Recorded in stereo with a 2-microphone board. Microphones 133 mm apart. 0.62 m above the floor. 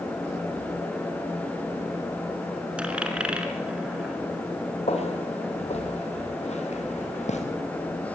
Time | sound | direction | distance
2.8 | a dropped coin | 10° right (ahead or behind) | 4 m
4.9 | footsteps | 50° left (ahead or behind) | 6 m